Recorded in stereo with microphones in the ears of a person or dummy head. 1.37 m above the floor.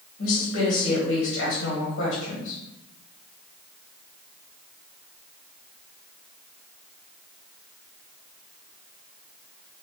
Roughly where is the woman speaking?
Left.